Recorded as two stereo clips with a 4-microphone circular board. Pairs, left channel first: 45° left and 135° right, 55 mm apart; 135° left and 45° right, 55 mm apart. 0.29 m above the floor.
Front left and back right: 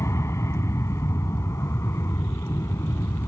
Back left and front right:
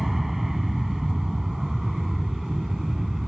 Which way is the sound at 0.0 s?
40° left.